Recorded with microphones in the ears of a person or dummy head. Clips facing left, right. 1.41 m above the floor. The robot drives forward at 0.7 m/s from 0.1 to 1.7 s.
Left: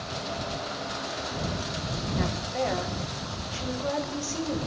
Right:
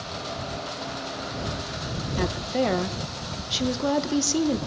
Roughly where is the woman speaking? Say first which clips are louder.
Right 5 dB; right.